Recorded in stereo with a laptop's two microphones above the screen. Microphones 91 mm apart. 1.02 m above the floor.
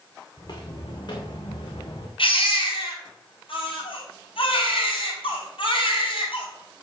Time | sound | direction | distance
0.4 | footsteps | 50° left (ahead or behind) | 5 m
2.2 | a baby crying | 75° left (ahead or behind) | 5.5 m